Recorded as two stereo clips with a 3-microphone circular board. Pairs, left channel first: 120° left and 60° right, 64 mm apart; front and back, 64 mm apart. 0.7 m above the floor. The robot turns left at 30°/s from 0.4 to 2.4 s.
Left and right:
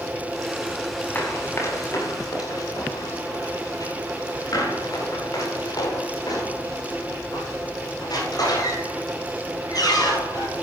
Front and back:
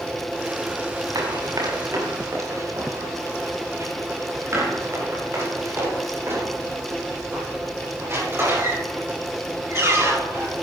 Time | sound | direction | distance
1.1 | running footsteps | straight behind | 7.5 m